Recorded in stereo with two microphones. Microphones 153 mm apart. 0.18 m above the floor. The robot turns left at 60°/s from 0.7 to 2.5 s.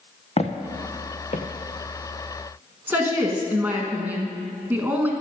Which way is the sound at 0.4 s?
45° left (ahead or behind).